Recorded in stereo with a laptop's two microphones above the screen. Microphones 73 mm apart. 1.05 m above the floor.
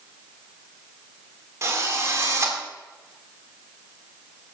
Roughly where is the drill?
Right.